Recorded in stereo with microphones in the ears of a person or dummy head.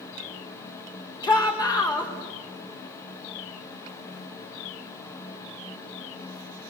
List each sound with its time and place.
1.2 s a shout: 25° left (ahead or behind), 4.5 m